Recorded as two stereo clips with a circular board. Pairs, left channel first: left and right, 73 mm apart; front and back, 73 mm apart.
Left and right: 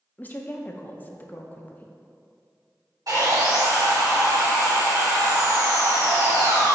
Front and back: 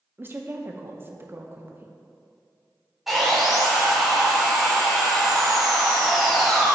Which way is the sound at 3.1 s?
90° right.